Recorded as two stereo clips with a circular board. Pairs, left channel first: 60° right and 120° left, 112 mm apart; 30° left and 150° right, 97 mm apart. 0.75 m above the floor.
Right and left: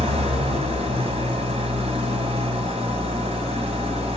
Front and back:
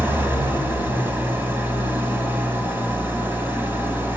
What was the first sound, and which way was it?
An engine running, 140° left.